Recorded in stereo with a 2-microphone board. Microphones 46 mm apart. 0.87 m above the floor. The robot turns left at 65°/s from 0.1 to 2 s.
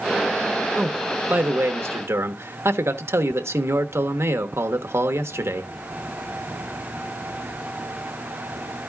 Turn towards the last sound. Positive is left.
turn(degrees=-90)